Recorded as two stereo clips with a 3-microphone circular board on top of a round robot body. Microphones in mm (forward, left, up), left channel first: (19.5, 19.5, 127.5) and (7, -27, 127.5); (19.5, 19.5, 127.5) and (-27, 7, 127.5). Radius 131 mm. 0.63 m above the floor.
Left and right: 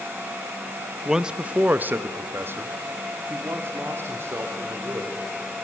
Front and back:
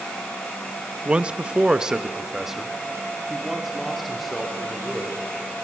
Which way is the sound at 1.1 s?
175° right.